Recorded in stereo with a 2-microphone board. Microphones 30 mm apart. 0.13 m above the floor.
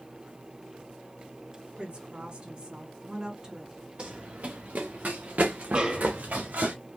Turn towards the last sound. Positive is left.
turn(degrees=-35)  # may be behind; listen again after turning